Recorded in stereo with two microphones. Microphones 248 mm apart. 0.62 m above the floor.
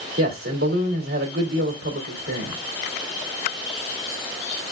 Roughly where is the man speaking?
Right.